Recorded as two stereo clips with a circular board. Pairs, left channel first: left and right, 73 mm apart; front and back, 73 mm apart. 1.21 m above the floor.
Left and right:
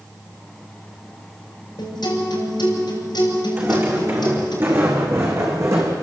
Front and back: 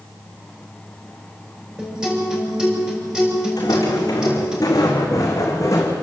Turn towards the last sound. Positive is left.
turn(degrees=-45)